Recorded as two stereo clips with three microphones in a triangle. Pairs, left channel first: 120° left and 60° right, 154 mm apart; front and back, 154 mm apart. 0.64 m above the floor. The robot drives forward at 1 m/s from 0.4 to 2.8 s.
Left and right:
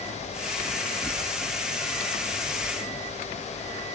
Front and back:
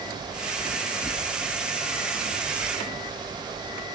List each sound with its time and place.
Only background noise.